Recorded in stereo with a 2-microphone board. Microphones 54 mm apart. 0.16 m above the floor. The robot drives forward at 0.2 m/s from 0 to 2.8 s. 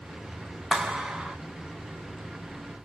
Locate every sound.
0.7 s a clap: 10° right (ahead or behind), 0.9 m; by 1.4 s 5° right (ahead or behind), 1.0 m